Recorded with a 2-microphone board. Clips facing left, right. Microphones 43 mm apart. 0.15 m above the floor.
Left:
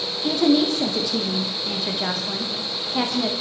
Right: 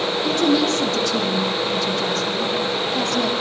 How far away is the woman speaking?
About 5.5 m.